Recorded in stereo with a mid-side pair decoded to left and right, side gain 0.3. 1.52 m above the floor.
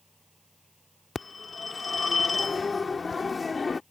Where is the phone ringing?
45° left.